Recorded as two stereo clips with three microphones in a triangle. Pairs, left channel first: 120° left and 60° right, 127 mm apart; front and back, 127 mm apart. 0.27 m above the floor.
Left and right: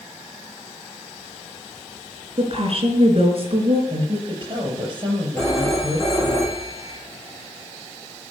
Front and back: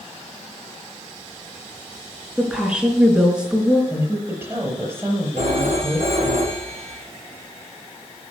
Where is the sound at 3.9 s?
110° right, 5.5 m.